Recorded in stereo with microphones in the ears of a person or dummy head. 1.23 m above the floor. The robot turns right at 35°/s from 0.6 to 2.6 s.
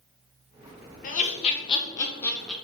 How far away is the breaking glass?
No breaking glass in this recording.